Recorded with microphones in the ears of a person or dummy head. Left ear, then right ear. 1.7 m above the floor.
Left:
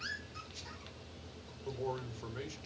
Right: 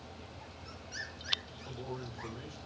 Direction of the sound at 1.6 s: 70° left (ahead or behind).